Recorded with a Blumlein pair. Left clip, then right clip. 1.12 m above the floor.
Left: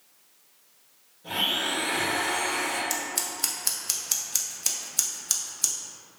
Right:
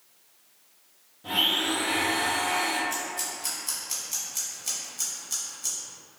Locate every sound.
1.2 s a blender: 40° right, 1.2 m
2.9 s scissors: 50° left, 0.7 m